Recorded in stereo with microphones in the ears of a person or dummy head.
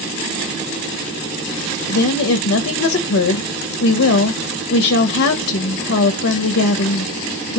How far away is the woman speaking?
About 0.6 m.